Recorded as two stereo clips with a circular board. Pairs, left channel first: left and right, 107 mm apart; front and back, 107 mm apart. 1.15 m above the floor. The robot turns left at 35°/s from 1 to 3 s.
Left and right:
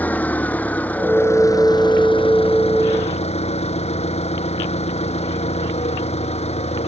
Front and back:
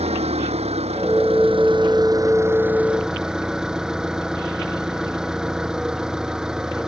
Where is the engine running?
165° left; by 6.9 s 95° left.